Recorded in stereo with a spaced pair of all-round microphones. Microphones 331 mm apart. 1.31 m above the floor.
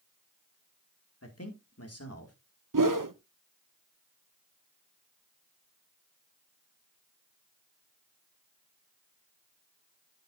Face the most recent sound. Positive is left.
turn(degrees=-70)  # may be behind; listen again after turning